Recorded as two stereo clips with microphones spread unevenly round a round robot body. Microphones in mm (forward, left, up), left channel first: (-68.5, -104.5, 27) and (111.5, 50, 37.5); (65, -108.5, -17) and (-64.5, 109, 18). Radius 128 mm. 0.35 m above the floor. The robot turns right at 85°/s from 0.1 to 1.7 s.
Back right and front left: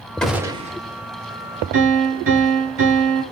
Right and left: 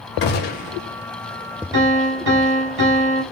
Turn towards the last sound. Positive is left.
turn(degrees=80)